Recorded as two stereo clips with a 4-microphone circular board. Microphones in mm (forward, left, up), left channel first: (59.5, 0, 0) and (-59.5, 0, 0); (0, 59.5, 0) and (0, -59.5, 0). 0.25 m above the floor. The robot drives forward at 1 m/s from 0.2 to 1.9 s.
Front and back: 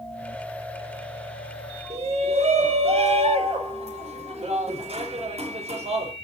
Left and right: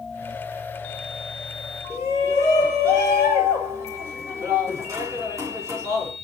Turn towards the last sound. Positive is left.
turn(degrees=-155)